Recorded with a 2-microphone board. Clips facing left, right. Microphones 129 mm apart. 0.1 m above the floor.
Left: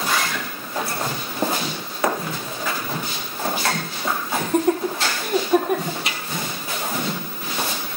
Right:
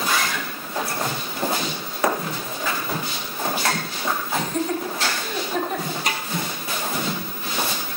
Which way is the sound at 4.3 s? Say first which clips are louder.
Left 7 dB; 60° left (ahead or behind).